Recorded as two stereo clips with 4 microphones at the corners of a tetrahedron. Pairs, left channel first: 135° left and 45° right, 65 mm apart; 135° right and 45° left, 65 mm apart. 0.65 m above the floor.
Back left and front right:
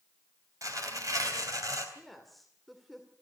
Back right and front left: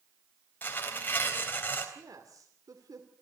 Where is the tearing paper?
75° right, 3.5 m.